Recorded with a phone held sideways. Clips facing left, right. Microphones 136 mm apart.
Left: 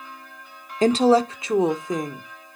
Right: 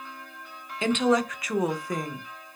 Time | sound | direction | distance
0.8 | a woman speaking | 40° left (ahead or behind) | 0.6 m